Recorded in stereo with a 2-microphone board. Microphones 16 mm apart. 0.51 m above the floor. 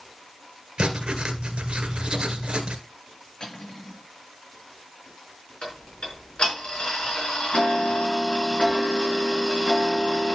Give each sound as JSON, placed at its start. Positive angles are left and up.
{"t": 0.8, "sound": "writing", "side_deg": -80, "distance_m": 1.8}
{"t": 3.4, "sound": "cutlery clinking", "side_deg": 45, "distance_m": 6.0}
{"t": 5.6, "sound": "ticking", "side_deg": 70, "distance_m": 4.0}